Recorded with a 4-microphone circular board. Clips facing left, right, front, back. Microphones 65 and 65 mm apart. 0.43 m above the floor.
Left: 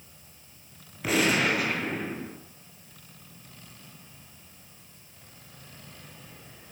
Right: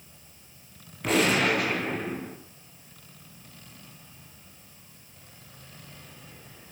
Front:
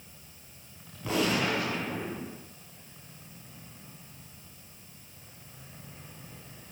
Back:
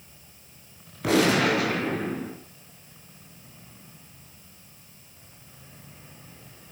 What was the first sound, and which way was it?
A gunshot, 175° left.